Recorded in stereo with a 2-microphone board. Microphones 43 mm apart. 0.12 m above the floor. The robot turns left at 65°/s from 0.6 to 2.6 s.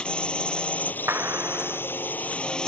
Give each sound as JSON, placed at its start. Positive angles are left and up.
{"t": 0.0, "sound": "a drone", "azimuth_deg": 155}
{"t": 1.1, "sound": "a clap", "azimuth_deg": -90}